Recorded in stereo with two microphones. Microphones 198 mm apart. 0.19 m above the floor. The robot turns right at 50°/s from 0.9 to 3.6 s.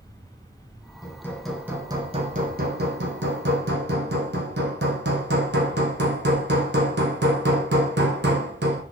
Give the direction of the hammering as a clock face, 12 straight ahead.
7 o'clock.